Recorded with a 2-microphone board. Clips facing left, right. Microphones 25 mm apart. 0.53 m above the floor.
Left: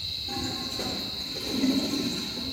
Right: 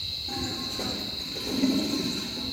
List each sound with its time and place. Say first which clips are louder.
0.3 s a toilet flushing: even; centre (ahead or behind), 6.5 m